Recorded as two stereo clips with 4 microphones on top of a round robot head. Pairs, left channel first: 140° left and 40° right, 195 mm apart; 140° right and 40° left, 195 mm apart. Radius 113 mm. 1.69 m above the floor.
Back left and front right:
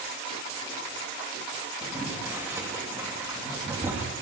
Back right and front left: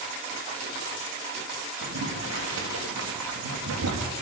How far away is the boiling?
About 3.5 m.